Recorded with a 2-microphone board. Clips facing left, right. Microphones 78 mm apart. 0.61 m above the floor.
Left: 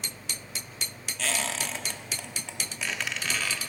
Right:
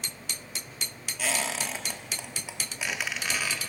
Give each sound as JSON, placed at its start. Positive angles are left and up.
{"t": 1.2, "sound": "a squeak", "side_deg": -10, "distance_m": 0.8}